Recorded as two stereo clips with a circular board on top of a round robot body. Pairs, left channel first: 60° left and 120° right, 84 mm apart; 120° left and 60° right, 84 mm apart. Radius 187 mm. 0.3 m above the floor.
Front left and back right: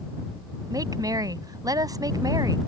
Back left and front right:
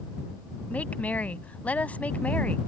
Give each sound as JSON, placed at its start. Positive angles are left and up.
{"t": 0.7, "sound": "a woman speaking", "azimuth_deg": -165}